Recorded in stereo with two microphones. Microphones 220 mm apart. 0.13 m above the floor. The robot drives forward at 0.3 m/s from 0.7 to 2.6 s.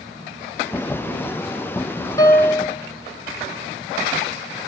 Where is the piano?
15° left (ahead or behind), 1.3 m.